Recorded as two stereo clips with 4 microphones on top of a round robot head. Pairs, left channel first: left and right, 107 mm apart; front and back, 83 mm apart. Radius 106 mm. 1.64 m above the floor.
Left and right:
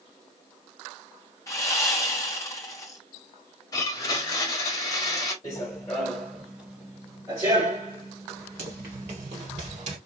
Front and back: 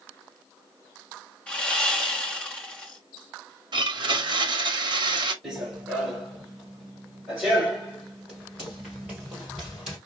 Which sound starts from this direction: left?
Running footsteps, at 5.4 s.